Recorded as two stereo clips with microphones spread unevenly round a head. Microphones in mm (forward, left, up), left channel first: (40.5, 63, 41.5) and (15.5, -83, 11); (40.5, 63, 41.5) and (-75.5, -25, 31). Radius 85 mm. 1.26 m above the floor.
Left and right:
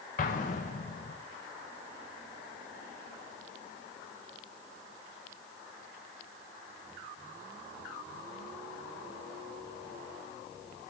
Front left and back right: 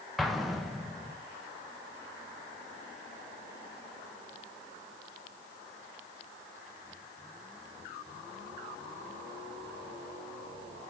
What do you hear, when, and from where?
0.2 s an explosion: 125° left, 0.7 m